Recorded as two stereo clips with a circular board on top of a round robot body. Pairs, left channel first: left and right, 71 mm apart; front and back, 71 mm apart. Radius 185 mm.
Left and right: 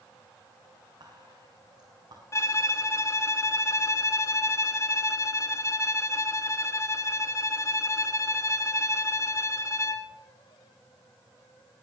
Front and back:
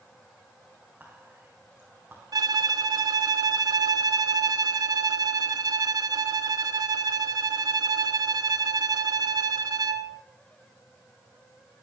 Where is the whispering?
105° right, 5 m.